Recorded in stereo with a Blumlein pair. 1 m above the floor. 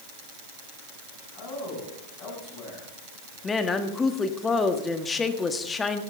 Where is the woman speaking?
15° left, 1.4 m.